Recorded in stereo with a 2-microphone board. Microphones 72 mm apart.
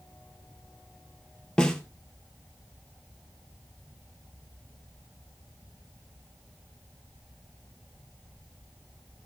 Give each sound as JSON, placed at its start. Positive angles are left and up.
{"t": 1.6, "sound": "a snare drum", "side_deg": 10, "distance_m": 1.7}